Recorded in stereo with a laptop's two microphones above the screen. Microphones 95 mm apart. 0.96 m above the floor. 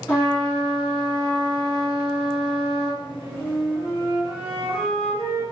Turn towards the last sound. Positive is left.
turn(degrees=85)